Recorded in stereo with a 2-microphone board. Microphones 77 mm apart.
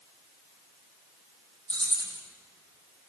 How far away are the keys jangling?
About 3 m.